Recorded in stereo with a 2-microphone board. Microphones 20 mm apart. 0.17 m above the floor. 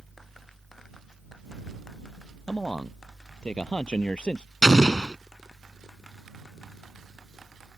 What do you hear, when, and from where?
2.5 s a man speaking: 65° left (ahead or behind)
4.6 s an explosion: 40° left (ahead or behind)